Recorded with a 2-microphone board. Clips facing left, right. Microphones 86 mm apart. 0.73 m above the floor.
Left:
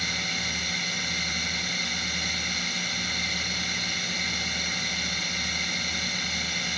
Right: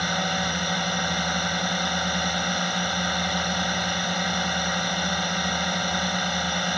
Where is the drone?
55° right (ahead or behind).